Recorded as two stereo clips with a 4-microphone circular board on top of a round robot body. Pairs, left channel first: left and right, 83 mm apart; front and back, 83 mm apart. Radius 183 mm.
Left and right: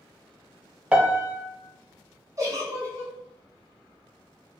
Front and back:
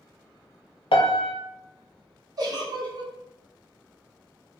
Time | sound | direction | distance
0.9 | a piano | 10° right | 0.6 m
2.4 | a giggle | 140° right | 1.2 m